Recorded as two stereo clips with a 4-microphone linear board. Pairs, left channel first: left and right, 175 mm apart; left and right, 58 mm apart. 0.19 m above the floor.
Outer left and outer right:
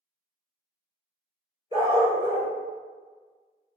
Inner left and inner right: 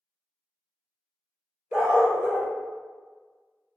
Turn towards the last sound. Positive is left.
turn(degrees=-25)  # may be behind; listen again after turning